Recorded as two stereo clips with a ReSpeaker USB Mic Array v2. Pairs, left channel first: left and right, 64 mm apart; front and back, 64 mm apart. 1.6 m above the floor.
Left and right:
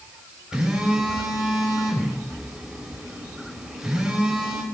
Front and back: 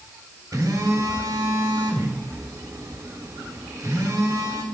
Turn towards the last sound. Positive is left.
turn(degrees=-170)